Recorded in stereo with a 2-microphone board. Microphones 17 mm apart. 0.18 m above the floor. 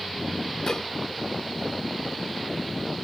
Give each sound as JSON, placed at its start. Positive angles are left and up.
{"t": 0.7, "sound": "dishes clattering", "side_deg": 40}